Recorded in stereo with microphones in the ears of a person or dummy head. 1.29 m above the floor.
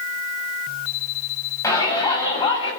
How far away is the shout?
About 8 m.